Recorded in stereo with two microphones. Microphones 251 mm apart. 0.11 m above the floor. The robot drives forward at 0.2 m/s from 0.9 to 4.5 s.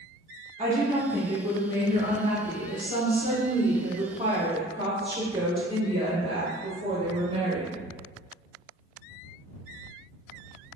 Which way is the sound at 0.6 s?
30° right (ahead or behind).